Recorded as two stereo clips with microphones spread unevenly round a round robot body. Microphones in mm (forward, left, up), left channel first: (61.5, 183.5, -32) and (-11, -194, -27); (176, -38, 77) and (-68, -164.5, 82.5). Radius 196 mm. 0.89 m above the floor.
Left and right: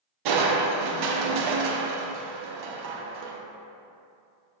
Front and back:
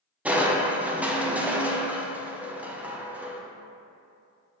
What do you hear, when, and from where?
0.2 s crushing: 65° right, 0.6 m